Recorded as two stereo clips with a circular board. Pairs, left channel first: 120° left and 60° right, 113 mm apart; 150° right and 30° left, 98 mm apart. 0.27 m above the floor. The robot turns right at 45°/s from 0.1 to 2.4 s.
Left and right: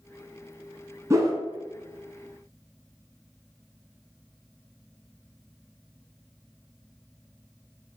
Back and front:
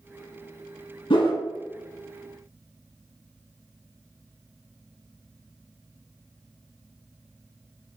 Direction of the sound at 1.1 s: 120° right.